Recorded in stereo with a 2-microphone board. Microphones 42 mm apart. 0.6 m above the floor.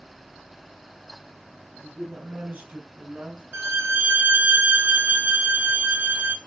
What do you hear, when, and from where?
1.8 s a man speaking: 45° right (ahead or behind), 5.5 m; by 3.4 s 35° right (ahead or behind), 6 m
3.5 s a violin: 60° right (ahead or behind), 1.4 m